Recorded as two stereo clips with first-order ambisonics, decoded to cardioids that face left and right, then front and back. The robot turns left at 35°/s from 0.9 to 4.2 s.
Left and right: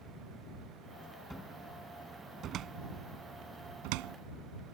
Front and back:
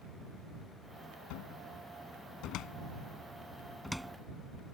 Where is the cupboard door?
5° left; by 4.2 s 95° right.